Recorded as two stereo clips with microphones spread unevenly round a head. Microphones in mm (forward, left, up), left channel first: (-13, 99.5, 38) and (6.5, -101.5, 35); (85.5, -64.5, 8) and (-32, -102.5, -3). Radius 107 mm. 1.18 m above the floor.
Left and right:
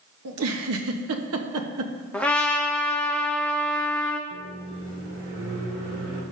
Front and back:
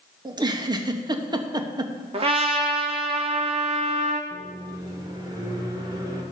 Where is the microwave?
105° right, 3.5 m.